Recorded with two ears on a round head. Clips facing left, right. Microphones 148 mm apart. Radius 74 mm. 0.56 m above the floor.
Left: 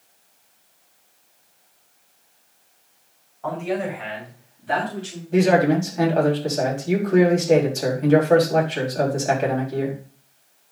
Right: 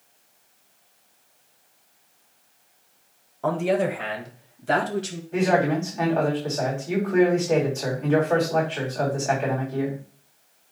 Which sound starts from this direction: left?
A man speaking, at 5.3 s.